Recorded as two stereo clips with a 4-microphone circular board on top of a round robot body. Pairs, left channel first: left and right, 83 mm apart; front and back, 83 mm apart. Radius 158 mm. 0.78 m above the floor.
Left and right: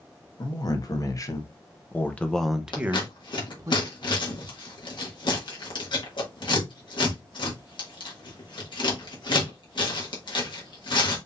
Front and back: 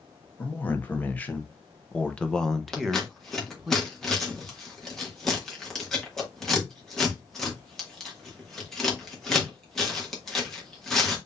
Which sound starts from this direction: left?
Scissors, at 2.7 s.